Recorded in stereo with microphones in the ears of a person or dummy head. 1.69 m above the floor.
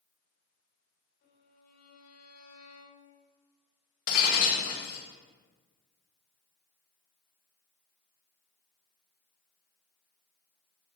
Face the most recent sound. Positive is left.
turn(degrees=50)  # may be behind; listen again after turning